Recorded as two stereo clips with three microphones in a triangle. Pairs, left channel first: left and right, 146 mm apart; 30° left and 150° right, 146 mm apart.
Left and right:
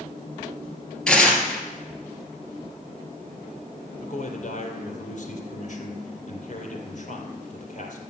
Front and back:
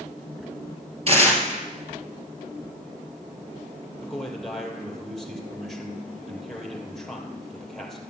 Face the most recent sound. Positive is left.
turn(degrees=120)